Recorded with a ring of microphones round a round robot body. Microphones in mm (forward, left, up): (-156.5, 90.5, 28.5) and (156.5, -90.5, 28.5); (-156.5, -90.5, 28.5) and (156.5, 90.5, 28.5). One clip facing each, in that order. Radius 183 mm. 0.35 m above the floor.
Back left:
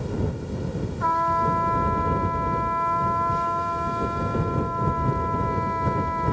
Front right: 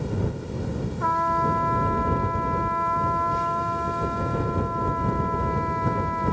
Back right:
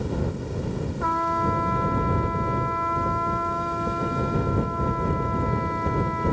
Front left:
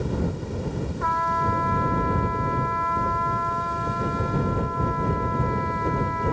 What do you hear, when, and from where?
1.0 s a trumpet: 160° left